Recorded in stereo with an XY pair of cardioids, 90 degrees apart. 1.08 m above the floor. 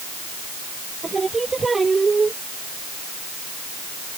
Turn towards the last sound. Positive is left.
turn(degrees=-30)